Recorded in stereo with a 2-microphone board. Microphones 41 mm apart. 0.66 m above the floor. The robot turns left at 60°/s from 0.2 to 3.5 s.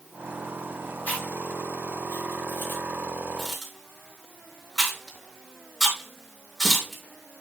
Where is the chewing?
40° left (ahead or behind), 4.5 m; by 7.0 s 5° right (ahead or behind), 4.5 m.